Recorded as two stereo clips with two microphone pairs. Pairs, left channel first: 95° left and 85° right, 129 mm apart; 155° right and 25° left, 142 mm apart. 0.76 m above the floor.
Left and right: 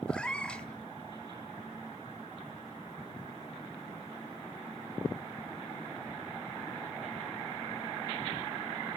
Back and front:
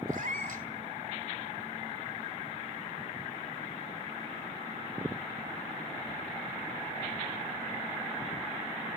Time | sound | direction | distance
0.1 | a cat meowing | 15° left | 1.6 m